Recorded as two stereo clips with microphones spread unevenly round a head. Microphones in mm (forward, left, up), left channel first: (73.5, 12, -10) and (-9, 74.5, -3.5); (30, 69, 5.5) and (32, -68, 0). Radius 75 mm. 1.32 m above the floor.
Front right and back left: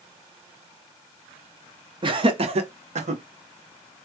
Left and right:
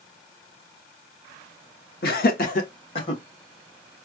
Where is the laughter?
105° left, 1.1 m; by 3.2 s 155° left, 1.2 m.